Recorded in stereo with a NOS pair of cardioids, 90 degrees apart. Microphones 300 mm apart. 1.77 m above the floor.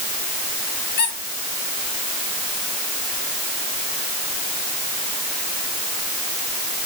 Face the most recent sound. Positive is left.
turn(degrees=40)